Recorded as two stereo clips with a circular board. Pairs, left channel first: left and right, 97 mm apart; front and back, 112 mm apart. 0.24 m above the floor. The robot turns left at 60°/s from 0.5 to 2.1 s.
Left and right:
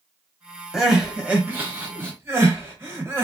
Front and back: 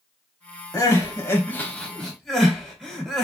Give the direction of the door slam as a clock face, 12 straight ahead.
I don't hear a door slam.